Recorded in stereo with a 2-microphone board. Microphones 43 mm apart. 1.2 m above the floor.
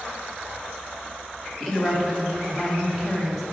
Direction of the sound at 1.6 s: Centre (ahead or behind).